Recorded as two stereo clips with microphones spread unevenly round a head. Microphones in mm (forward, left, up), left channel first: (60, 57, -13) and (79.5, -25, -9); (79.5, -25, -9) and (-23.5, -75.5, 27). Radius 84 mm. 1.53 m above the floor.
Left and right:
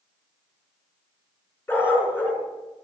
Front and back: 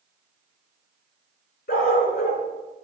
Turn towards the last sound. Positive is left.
turn(degrees=40)